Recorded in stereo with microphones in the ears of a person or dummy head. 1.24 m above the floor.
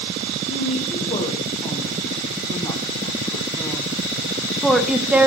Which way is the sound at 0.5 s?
35° left (ahead or behind).